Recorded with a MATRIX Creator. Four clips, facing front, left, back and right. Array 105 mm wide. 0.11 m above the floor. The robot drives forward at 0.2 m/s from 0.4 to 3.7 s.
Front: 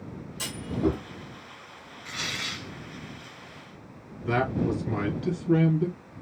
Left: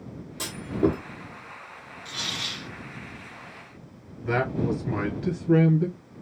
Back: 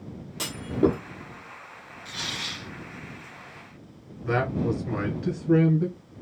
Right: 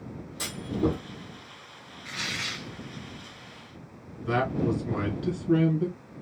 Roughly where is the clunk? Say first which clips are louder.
Left 3 dB, back 4 dB; behind.